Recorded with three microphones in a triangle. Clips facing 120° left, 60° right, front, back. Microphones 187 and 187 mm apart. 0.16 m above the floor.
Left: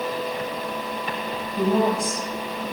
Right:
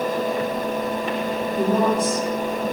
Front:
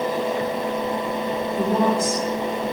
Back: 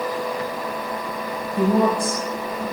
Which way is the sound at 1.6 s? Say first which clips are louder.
Right 1 dB, back 3 dB; 165° right.